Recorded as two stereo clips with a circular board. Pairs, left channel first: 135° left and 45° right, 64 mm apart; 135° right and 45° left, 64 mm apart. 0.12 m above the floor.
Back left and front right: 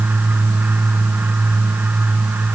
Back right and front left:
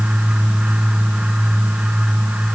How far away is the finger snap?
No finger snap in this recording.